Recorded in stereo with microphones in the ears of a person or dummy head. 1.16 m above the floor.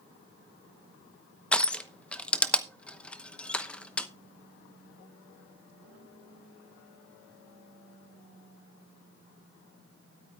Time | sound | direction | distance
1.5 | crushing | 5° left (ahead or behind) | 0.8 m